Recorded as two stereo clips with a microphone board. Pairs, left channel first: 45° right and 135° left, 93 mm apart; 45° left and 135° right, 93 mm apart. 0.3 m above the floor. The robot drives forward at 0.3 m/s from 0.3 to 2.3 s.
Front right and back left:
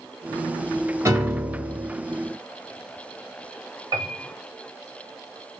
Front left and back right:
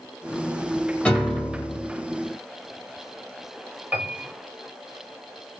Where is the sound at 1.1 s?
110° left, 1.5 m; by 1.9 s 125° left, 1.5 m.